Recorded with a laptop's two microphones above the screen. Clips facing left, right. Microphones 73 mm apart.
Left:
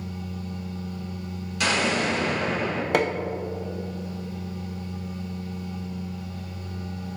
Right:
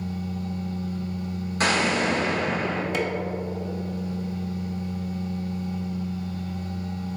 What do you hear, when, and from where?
0.0 s a machine running: 60° right (ahead or behind), 1.1 m
1.6 s an explosion: 40° right (ahead or behind), 1.4 m
2.9 s hammering: 60° left (ahead or behind), 0.5 m